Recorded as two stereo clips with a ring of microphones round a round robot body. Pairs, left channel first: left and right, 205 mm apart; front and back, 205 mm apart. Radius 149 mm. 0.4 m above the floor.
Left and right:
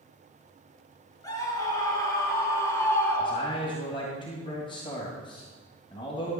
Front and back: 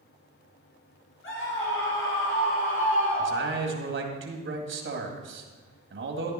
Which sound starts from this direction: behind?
A man speaking, at 3.2 s.